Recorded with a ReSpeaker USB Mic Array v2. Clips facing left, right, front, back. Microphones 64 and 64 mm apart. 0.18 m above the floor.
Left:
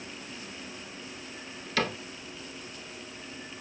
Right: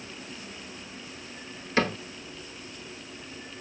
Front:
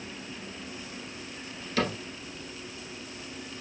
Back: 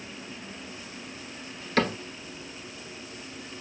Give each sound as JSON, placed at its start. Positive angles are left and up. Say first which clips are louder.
{"t": 1.8, "sound": "a cupboard door", "louder": "right 4 dB, back 3 dB", "azimuth_deg": -150, "distance_m": 1.1}